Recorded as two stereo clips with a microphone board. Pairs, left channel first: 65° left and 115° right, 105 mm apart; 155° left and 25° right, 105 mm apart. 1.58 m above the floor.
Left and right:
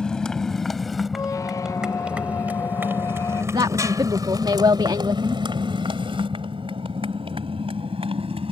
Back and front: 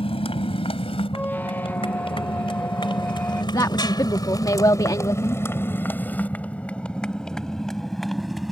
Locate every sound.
0.0 s a motorcycle: 150° left; by 8.5 s 110° right
1.1 s a squeak: 95° left
3.5 s a woman speaking: 155° right